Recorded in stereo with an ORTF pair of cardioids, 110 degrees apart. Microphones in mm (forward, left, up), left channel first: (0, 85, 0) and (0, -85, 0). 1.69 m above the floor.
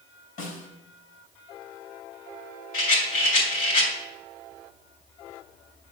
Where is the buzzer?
No buzzer in this recording.